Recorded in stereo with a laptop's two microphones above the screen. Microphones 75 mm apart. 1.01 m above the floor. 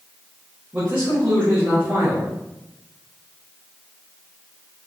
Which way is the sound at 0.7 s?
20° right (ahead or behind).